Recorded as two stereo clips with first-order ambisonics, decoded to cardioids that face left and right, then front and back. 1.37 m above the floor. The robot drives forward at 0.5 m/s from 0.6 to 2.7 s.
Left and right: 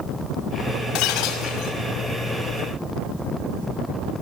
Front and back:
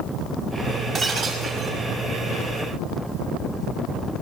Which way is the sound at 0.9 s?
120° left.